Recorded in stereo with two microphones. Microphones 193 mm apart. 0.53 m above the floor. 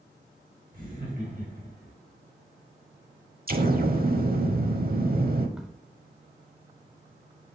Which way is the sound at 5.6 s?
5° right (ahead or behind).